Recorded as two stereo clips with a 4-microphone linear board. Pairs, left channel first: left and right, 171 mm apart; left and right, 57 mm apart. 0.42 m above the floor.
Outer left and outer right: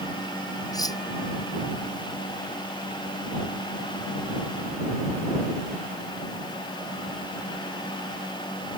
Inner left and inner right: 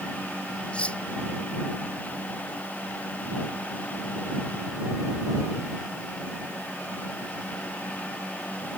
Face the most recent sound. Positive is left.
turn(degrees=20)  # may be behind; listen again after turning